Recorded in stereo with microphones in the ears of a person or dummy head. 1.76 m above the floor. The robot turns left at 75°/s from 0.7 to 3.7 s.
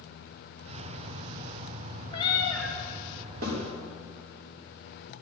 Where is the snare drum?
45° right (ahead or behind), 4.5 m; by 3.6 s 60° right (ahead or behind), 4.5 m.